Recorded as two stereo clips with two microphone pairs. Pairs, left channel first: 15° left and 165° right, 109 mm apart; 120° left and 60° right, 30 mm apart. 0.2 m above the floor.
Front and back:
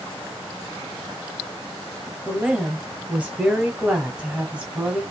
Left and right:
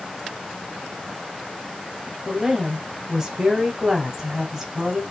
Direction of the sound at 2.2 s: 110° right.